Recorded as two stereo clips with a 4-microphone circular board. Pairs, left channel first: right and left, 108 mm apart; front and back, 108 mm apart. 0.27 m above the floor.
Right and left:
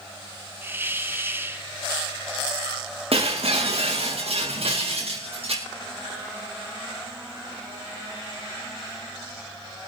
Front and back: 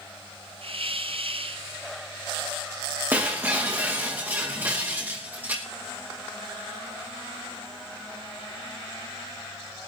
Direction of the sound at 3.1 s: 110° left.